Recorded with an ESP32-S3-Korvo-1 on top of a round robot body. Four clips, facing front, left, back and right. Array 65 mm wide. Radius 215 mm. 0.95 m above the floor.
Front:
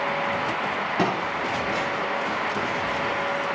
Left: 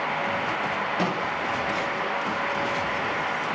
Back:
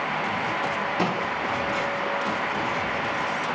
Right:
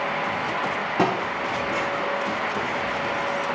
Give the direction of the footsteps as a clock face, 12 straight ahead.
2 o'clock.